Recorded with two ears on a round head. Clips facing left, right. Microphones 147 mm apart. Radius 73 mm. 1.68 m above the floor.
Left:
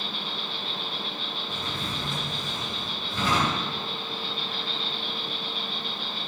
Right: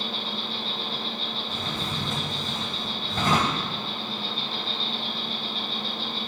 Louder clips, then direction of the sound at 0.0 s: Right 3 dB; 25° right (ahead or behind).